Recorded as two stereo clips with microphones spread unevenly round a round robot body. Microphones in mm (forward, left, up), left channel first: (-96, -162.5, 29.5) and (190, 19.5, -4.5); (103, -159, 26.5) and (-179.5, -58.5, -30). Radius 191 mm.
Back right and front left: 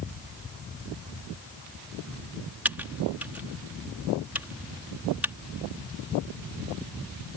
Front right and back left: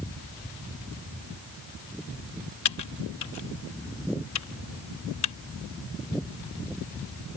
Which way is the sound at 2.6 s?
50° right.